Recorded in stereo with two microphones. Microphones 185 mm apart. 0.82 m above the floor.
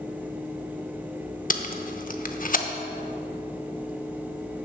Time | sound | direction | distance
1.5 | tape being pulled | 50° left (ahead or behind) | 0.7 m